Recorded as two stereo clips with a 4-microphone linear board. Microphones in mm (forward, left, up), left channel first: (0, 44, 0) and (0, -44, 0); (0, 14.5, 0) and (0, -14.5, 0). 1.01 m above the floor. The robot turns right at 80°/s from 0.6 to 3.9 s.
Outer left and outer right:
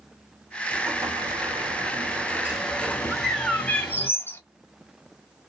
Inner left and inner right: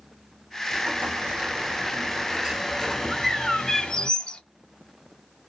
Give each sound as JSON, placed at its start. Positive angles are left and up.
{"t": 0.7, "sound": "an explosion", "azimuth_deg": -160, "distance_m": 1.5}
{"t": 3.1, "sound": "a bird", "azimuth_deg": -15, "distance_m": 0.7}